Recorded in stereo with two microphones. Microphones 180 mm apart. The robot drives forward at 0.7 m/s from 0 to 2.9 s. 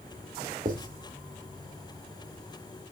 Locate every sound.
0.7 s writing: 50° right (ahead or behind), 2 m